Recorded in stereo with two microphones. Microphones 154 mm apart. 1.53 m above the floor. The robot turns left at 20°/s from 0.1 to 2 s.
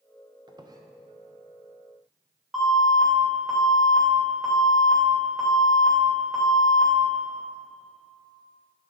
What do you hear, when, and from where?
0.5 s a squeak: 30° right (ahead or behind), 0.7 m; by 0.8 s 25° right (ahead or behind), 0.7 m
2.5 s an alarm: centre (ahead or behind), 3 m